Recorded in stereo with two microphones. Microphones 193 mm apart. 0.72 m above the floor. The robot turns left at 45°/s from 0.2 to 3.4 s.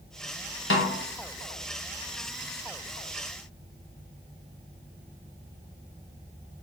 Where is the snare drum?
75° left (ahead or behind), 0.7 m; by 1.0 s 65° left (ahead or behind), 0.7 m.